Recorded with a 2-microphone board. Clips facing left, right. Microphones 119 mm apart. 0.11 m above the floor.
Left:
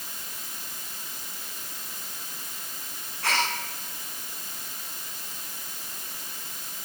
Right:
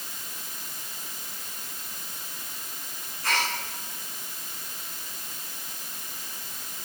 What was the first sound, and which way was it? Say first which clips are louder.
A gasp: left 1 dB; 75° left (ahead or behind).